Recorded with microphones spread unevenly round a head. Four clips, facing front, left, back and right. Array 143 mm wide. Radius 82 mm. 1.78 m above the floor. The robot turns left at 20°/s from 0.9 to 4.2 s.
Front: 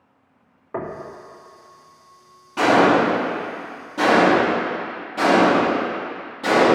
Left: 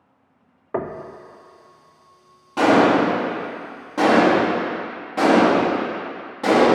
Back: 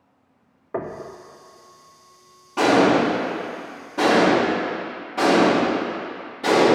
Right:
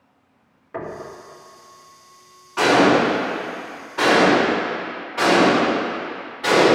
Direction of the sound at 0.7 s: 45° left.